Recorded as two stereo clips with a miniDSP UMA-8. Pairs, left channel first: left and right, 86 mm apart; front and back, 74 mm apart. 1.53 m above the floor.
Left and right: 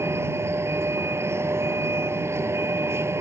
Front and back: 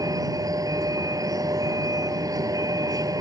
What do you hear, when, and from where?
0.0 s a vehicle: 150° right